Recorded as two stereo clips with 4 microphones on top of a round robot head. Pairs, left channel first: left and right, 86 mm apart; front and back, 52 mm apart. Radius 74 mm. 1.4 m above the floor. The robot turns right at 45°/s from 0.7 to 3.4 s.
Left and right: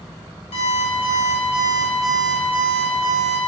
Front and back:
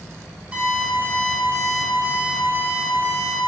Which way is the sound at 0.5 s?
115° left.